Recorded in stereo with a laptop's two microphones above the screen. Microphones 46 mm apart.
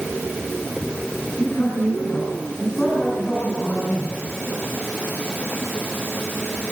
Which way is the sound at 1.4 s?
30° left (ahead or behind).